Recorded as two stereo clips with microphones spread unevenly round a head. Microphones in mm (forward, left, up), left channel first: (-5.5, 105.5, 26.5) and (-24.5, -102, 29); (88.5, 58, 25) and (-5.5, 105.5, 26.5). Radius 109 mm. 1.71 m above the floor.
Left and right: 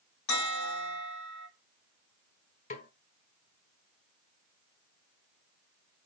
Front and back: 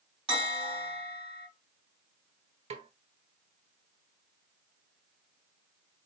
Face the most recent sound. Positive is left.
turn(degrees=140)